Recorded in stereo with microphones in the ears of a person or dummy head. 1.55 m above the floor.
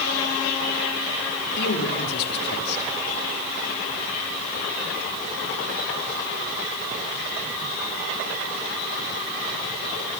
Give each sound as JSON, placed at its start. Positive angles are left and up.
{"t": 1.6, "sound": "a man speaking", "side_deg": 60, "distance_m": 4.0}